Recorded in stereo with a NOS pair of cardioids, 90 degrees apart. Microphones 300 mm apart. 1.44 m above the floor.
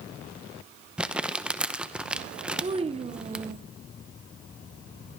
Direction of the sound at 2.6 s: 20° right.